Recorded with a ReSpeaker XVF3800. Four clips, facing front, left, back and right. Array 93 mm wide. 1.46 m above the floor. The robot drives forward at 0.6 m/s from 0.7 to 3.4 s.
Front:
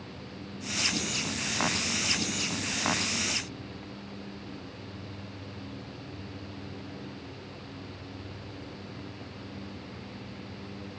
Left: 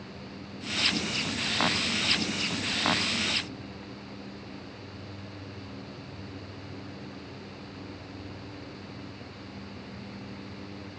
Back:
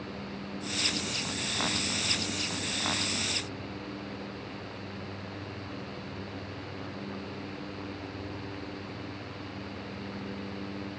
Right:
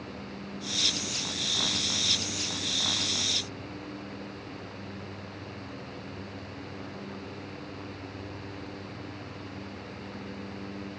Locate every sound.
Only background noise.